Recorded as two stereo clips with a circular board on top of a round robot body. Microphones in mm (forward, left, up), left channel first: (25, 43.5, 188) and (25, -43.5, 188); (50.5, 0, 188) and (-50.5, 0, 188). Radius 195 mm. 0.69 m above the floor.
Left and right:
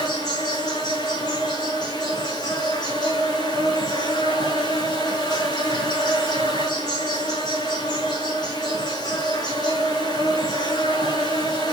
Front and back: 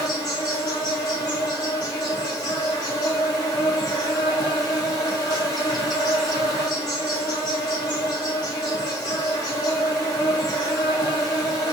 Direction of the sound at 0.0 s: 50° left.